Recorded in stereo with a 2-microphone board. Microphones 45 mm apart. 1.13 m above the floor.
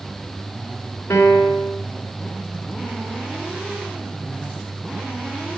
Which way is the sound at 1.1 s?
80° left.